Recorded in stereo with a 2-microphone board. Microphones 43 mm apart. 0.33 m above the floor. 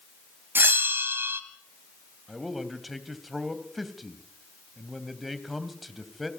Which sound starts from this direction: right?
A bell, at 0.6 s.